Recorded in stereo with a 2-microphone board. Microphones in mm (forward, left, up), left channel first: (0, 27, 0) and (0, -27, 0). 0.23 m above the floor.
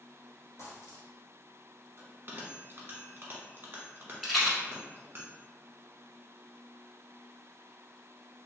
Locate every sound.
0.6 s a dropped coin: 60° left (ahead or behind), 1.4 m
2.0 s a bell: 45° right (ahead or behind), 0.9 m
4.2 s a rattle: centre (ahead or behind), 1.0 m